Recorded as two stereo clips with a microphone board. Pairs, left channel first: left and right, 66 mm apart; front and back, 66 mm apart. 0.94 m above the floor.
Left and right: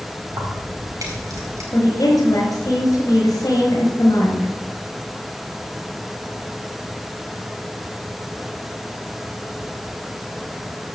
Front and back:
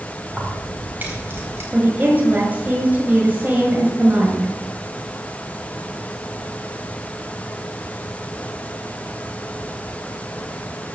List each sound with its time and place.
0.3 s keys jangling: 100° right, 4.5 m; by 1.6 s 130° right, 4 m
1.7 s a woman speaking: 120° left, 5.5 m